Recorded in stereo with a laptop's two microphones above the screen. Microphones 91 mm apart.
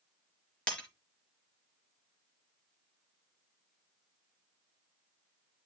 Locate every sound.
0.7 s breaking glass: 10° left (ahead or behind), 4 m